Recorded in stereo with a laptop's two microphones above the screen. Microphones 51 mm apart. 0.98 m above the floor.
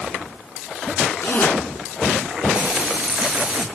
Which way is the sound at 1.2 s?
30° left (ahead or behind).